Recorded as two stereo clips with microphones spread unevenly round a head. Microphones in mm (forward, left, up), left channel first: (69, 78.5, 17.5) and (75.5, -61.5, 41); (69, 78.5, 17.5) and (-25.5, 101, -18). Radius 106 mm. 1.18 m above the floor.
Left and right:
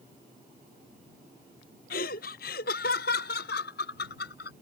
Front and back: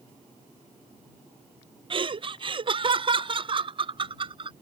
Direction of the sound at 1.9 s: 130° left.